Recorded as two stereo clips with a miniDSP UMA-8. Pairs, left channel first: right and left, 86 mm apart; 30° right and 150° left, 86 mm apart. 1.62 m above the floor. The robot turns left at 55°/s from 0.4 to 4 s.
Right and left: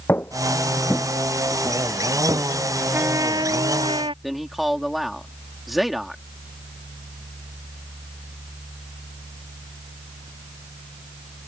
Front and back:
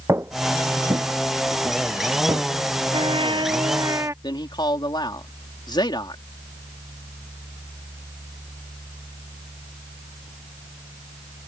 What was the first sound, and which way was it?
Footsteps, 155° right.